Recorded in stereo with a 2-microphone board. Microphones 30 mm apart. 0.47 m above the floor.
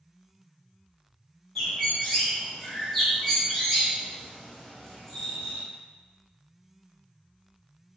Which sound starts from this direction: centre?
A bird, at 1.6 s.